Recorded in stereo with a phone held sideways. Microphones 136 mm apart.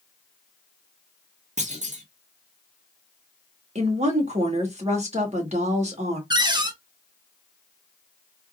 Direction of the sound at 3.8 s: 55° right (ahead or behind).